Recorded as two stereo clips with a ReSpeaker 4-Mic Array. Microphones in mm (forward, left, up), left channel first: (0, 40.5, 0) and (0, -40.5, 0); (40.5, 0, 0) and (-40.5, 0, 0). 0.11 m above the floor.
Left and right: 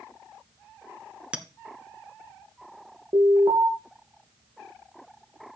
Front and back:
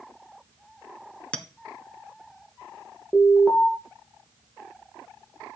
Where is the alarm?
70° right, 2.5 m.